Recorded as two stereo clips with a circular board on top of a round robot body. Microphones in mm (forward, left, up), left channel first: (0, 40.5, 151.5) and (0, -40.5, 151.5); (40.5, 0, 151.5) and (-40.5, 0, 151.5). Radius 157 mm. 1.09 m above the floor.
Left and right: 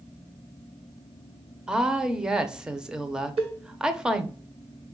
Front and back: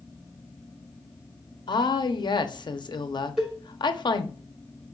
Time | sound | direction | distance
1.7 | a woman speaking | 10° right | 0.8 m
3.4 | a cowbell | 95° right | 1.1 m